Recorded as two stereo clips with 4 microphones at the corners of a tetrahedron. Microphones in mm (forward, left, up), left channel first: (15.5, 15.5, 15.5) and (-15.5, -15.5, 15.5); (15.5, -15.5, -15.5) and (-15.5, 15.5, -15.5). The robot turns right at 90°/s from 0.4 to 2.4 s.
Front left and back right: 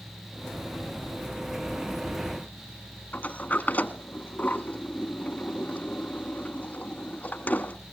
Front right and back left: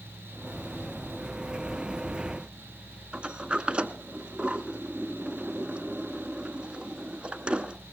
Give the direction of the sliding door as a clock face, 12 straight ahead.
9 o'clock.